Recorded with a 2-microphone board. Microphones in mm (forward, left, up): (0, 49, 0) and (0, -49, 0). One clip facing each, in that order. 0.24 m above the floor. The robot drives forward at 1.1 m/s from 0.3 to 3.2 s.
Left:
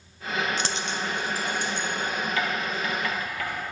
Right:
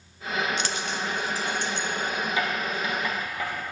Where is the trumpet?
I don't hear a trumpet.